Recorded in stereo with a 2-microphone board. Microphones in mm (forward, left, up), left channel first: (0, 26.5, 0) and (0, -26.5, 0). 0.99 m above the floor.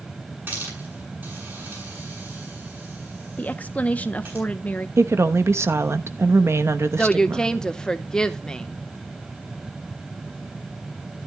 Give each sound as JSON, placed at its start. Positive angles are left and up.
{"t": 0.5, "sound": "a hiss", "side_deg": -40, "distance_m": 8.0}
{"t": 3.4, "sound": "a woman speaking", "side_deg": 30, "distance_m": 0.8}
{"t": 5.0, "sound": "a woman speaking", "side_deg": -55, "distance_m": 0.9}
{"t": 7.0, "sound": "a woman speaking", "side_deg": 15, "distance_m": 0.9}